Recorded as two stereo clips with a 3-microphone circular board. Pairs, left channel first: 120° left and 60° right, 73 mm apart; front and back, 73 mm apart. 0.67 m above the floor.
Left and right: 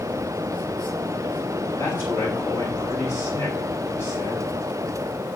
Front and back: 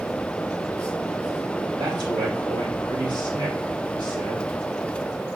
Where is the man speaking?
175° left, 4.5 m.